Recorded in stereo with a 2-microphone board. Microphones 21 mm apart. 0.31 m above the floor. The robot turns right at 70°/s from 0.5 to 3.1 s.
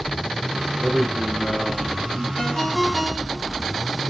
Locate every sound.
0.5 s a man speaking: 15° right, 5.5 m; by 2.3 s 110° left, 5.5 m
2.4 s a ringtone: 135° left, 1.7 m; by 3.7 s 170° right, 1.7 m